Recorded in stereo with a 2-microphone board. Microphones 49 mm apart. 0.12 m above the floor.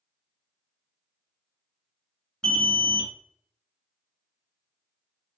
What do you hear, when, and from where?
2.4 s an alarm: 15° left (ahead or behind), 0.8 m